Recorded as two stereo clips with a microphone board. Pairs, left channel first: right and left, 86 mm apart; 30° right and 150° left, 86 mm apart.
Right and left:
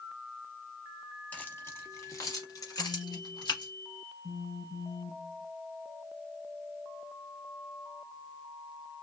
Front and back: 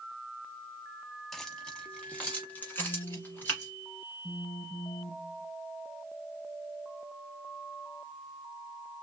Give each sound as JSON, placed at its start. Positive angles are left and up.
{"t": 1.3, "sound": "keys jangling", "azimuth_deg": -110, "distance_m": 0.9}
{"t": 2.8, "sound": "a phone buzzing", "azimuth_deg": -65, "distance_m": 1.3}